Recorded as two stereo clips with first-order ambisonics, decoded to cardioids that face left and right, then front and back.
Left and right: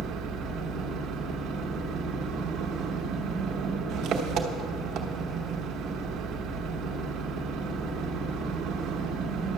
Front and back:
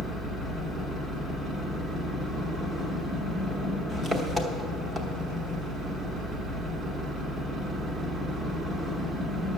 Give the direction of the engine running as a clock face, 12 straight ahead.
4 o'clock.